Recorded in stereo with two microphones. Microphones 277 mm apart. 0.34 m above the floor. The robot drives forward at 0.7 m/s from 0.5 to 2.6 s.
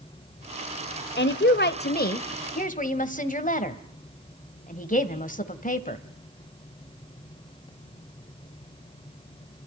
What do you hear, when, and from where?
1.2 s a woman speaking: 40° left (ahead or behind), 1.1 m; by 6.0 s 30° left (ahead or behind), 1.5 m